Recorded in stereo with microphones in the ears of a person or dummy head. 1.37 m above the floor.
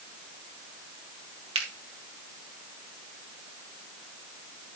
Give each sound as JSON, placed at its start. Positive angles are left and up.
{"t": 1.6, "sound": "a finger snap", "side_deg": -35, "distance_m": 1.8}